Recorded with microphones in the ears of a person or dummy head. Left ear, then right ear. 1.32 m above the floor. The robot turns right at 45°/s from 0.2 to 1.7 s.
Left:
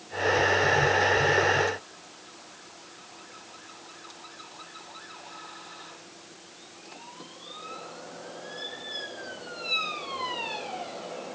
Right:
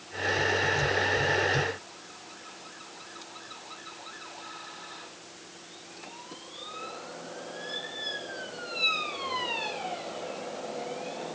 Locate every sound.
Only background noise.